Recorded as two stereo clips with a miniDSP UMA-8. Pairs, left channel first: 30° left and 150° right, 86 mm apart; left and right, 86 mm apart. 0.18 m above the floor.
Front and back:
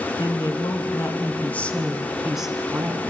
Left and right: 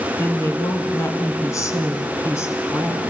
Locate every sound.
0.2 s a woman speaking: 35° left, 2 m; by 3.0 s 145° left, 2 m